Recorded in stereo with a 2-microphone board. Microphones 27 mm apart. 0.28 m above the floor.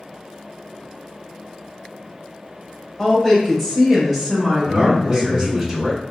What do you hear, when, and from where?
3.0 s a woman speaking: 15° left (ahead or behind), 1.1 m; by 5.7 s 30° right (ahead or behind), 1.3 m
4.7 s a man speaking: 10° right (ahead or behind), 1.6 m